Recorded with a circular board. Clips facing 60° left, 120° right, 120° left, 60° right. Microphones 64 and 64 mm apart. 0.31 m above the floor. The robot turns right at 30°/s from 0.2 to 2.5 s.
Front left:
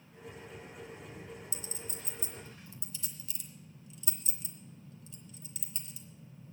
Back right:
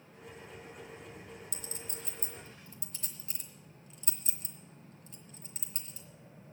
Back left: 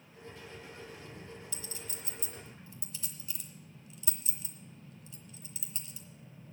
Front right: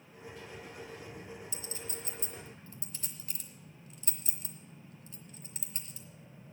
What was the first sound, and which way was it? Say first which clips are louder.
A clink: front left 1 dB, front right 2 dB; 125° right.